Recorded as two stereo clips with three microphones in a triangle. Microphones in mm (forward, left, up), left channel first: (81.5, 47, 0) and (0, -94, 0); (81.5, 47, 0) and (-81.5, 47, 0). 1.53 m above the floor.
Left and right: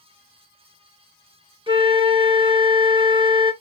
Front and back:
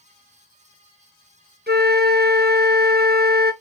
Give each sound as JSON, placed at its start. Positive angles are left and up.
{"t": 1.7, "sound": "a flute", "azimuth_deg": -175, "distance_m": 0.6}